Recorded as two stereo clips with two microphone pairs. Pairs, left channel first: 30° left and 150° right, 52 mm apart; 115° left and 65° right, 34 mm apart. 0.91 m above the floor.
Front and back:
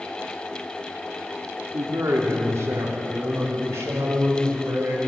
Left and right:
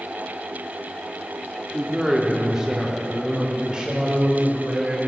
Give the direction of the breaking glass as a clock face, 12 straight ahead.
No breaking glass in this recording.